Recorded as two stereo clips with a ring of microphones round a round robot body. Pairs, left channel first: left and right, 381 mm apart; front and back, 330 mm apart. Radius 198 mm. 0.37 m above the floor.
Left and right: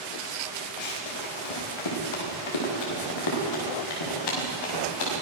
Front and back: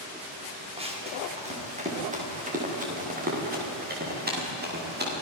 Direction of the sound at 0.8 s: 105° left.